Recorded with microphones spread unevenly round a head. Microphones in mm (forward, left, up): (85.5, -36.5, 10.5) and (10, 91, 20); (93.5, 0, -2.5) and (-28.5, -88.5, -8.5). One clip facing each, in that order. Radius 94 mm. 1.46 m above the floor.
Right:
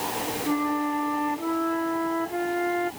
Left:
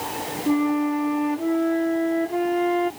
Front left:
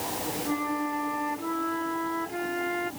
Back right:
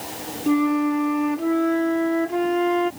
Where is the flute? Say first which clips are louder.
Left 6 dB, back right 13 dB; straight behind.